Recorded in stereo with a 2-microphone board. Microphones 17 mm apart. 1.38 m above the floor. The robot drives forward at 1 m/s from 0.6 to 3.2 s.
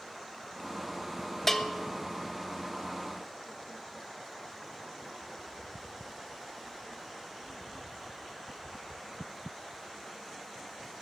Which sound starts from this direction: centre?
A bell, at 1.5 s.